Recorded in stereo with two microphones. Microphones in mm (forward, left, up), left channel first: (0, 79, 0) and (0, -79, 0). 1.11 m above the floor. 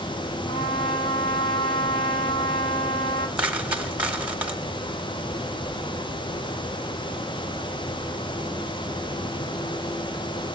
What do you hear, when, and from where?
0.5 s a trumpet: 40° left (ahead or behind), 3 m
3.4 s a dropped coin: 10° right (ahead or behind), 1.7 m